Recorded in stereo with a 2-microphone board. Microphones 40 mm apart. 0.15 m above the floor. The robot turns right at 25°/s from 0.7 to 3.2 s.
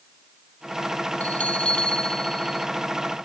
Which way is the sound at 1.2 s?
145° left.